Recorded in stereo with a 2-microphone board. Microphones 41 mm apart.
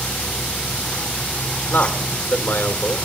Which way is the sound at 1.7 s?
65° left (ahead or behind).